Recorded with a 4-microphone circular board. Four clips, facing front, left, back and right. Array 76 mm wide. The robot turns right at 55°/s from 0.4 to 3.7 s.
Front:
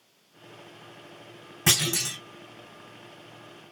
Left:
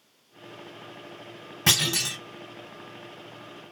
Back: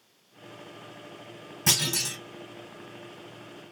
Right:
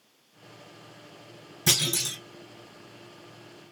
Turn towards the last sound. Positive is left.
turn(degrees=180)